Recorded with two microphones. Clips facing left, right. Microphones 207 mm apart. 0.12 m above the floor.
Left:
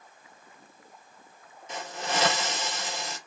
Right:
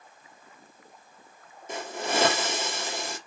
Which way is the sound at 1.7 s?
55° right (ahead or behind).